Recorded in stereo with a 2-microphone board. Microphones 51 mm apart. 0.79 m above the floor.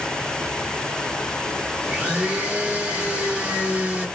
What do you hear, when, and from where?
1.8 s a blender: 30° right (ahead or behind), 1.4 m